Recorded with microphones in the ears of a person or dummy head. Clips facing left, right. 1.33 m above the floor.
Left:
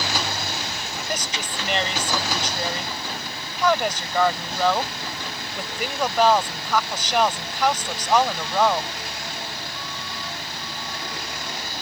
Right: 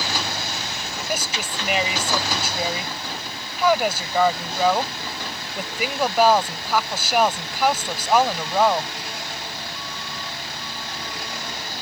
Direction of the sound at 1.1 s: 10° right (ahead or behind).